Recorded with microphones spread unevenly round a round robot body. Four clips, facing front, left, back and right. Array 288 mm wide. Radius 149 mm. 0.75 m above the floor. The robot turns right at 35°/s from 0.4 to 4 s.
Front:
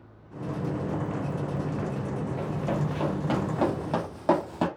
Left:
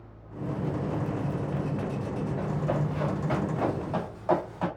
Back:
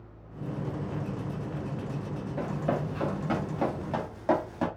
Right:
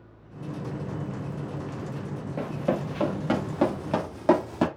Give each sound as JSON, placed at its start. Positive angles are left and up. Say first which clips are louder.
{"t": 2.4, "sound": "running footsteps", "louder": "right 4 dB, back 2 dB", "azimuth_deg": -105, "distance_m": 3.5}